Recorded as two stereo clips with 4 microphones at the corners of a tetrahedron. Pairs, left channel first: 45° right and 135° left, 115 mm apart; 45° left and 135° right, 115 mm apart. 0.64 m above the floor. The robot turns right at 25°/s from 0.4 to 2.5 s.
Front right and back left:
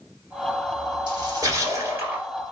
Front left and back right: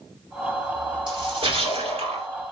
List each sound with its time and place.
1.1 s a splash: straight behind, 2.5 m; by 2.3 s 150° right, 2.5 m